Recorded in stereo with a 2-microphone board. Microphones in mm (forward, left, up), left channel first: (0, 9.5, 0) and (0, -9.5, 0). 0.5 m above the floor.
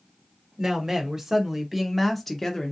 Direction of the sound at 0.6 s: 30° right (ahead or behind).